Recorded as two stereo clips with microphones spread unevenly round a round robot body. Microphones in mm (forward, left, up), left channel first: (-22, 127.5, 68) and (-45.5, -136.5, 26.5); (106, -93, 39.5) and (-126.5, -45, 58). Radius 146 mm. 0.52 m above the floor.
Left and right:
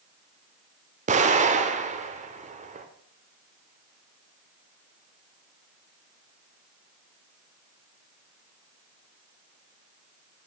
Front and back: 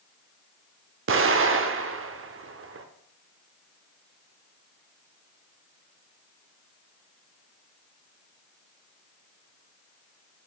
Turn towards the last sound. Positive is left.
turn(degrees=-155)